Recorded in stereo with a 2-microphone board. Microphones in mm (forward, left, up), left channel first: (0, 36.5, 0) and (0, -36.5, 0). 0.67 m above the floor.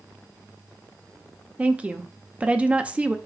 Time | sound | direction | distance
1.6 | a woman speaking | 15° right (ahead or behind) | 0.6 m